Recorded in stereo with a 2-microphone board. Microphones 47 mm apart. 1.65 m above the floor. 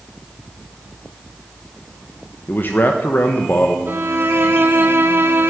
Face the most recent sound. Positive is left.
turn(degrees=-50)  # may be behind; listen again after turning